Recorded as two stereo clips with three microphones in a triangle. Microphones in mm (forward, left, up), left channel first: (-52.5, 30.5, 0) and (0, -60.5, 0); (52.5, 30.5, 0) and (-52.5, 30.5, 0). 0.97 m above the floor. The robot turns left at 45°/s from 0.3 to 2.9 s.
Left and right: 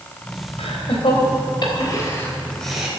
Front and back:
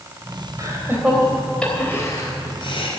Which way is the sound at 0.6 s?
125° left.